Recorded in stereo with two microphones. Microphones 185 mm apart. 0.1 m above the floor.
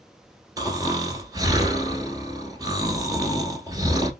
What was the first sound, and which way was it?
Snoring, 20° right (ahead or behind).